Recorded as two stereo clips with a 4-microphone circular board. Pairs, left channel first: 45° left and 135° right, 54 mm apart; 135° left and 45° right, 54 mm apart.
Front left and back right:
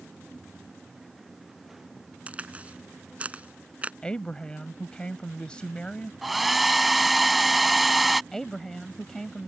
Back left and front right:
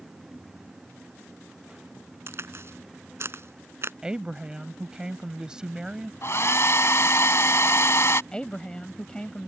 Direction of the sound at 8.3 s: 110° left.